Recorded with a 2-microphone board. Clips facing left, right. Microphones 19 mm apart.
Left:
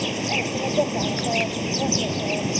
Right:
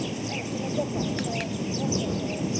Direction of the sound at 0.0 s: 40° left (ahead or behind).